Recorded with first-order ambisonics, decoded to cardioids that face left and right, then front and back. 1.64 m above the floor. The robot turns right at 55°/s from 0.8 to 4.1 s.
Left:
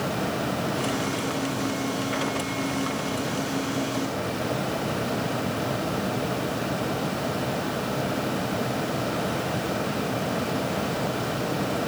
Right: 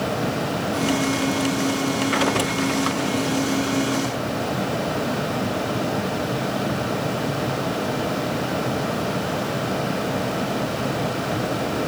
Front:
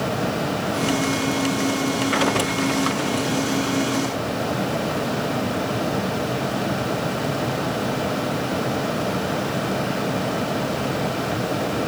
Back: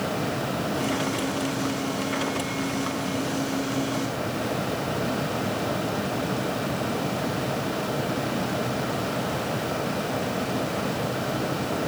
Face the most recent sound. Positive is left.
No sound to turn to.